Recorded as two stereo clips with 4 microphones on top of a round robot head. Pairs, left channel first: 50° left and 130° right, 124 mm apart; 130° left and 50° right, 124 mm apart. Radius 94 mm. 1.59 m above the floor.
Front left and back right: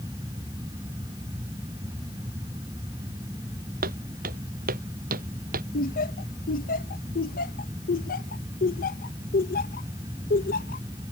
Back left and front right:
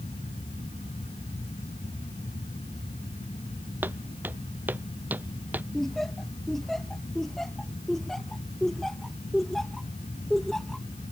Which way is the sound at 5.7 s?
40° left.